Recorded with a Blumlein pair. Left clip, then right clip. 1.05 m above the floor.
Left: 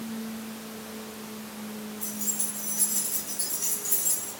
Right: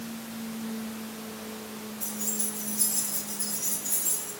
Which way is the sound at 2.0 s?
5° left.